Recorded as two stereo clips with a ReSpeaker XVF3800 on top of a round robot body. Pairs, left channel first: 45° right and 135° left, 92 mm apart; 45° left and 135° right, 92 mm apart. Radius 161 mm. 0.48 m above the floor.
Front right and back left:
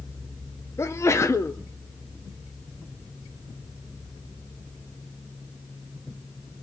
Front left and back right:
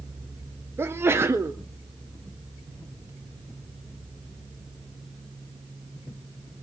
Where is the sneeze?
85° right, 1.7 m.